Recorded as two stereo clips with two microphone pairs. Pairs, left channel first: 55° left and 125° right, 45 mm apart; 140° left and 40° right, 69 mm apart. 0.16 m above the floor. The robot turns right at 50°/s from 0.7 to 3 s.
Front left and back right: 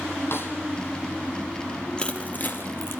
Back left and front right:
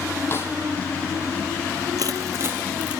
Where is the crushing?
15° right, 4 m; by 3.0 s 35° left, 4 m.